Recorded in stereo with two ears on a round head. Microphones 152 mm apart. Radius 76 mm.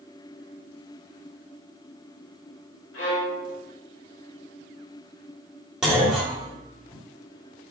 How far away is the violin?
About 1.8 m.